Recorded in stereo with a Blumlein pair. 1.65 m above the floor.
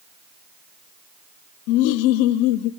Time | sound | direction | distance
1.7 | laughter | 45° left | 0.6 m